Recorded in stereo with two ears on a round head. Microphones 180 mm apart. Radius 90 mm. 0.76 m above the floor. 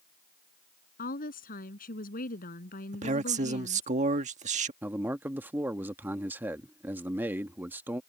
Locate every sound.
1.0 s a woman speaking: 45° left (ahead or behind)
2.9 s a man speaking: 35° right (ahead or behind)
4.8 s a man speaking: 10° right (ahead or behind)